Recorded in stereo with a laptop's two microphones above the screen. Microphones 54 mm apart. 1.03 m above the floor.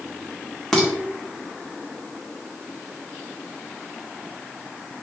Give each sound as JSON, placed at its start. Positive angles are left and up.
{"t": 0.7, "sound": "dishes clattering", "side_deg": 10, "distance_m": 1.4}